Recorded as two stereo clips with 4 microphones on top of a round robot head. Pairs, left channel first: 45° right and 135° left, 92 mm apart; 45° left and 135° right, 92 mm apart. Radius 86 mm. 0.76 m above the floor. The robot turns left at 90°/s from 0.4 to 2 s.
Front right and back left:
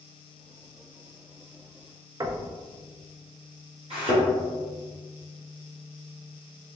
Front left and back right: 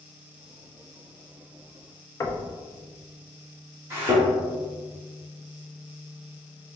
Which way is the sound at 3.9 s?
160° left.